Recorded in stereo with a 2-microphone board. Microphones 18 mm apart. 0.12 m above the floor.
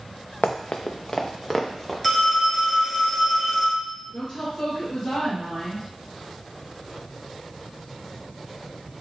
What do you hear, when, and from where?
0.4 s running footsteps: 85° left, 0.7 m; by 1.9 s centre (ahead or behind), 1.3 m
2.0 s a phone ringing: 10° left (ahead or behind), 1.2 m
4.1 s a woman speaking: 35° left (ahead or behind), 2 m